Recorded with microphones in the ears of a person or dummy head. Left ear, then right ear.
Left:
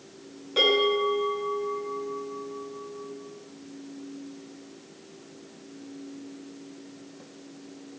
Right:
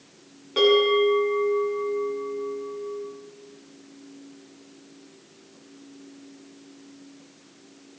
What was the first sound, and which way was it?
A bell, 15° right (ahead or behind).